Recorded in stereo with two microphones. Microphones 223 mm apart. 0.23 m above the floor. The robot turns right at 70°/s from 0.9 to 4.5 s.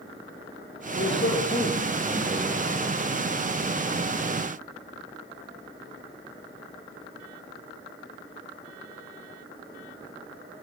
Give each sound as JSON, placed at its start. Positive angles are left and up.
{"t": 1.0, "sound": "a man speaking", "azimuth_deg": 110, "distance_m": 6.0}